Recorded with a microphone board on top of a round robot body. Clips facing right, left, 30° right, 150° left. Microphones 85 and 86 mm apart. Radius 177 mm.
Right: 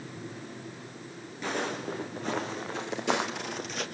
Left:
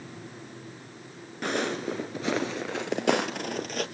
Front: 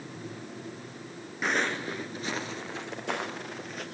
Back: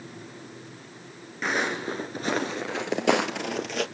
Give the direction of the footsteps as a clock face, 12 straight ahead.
10 o'clock.